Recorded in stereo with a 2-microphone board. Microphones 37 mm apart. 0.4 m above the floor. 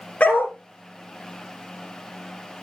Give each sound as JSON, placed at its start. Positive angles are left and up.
{"t": 0.2, "sound": "a dog barking", "side_deg": 35, "distance_m": 3.0}